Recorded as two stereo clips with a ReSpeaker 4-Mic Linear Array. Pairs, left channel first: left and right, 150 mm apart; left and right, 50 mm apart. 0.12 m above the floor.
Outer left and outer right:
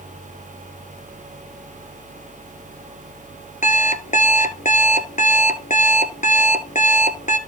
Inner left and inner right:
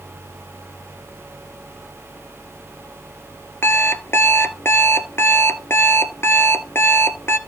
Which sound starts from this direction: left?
An alarm clock, at 3.6 s.